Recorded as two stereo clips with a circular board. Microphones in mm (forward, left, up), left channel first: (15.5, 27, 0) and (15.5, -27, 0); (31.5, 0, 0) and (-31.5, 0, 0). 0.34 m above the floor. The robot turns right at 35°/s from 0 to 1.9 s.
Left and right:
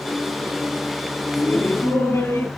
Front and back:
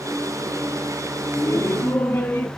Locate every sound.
1.4 s laughter: 35° left, 2.5 m; by 2.5 s 55° left, 2.5 m